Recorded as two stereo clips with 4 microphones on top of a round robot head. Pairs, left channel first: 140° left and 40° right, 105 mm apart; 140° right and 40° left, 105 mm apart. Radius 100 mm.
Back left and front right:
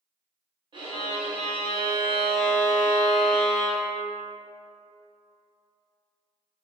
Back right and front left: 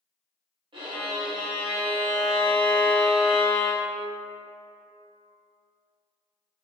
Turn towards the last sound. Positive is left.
turn(degrees=0)